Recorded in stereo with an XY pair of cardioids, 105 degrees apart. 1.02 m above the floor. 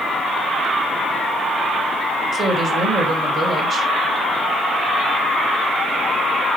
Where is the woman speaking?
50° right, 3 m.